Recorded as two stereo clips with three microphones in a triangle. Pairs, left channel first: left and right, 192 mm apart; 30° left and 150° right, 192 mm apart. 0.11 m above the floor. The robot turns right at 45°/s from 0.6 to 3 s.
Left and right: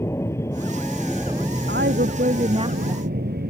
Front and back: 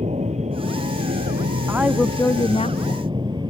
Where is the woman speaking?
70° right; by 3.0 s 10° right.